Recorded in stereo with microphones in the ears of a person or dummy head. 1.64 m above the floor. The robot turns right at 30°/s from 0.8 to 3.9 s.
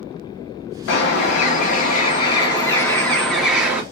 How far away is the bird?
About 0.9 m.